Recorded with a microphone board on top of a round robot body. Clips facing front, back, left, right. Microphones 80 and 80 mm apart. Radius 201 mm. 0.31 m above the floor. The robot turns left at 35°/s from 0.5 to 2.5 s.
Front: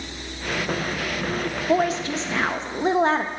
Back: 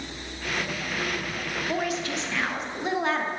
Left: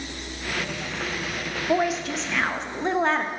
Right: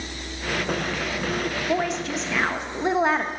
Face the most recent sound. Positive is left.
turn(degrees=-15)